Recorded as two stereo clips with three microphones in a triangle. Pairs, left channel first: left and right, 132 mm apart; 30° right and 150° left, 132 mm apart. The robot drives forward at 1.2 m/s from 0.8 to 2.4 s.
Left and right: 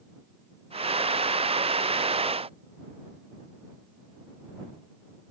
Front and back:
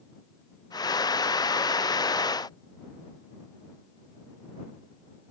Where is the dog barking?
I don't hear a dog barking.